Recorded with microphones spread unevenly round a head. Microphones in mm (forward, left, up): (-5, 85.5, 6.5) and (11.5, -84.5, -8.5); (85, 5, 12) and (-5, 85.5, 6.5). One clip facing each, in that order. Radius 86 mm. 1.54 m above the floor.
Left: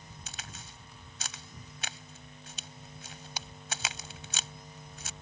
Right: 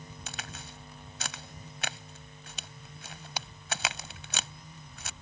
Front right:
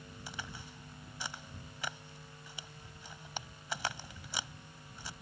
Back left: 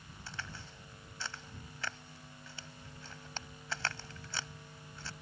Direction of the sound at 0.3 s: 125° right.